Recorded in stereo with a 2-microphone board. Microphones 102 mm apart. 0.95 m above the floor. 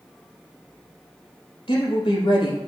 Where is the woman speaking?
70° left (ahead or behind), 4 m.